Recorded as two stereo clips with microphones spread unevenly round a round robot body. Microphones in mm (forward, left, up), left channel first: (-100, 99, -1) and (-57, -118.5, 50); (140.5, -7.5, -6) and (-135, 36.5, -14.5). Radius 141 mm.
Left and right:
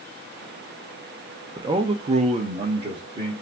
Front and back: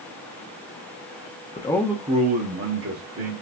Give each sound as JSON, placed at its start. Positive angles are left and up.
{"t": 1.6, "sound": "a man speaking", "azimuth_deg": 5, "distance_m": 0.6}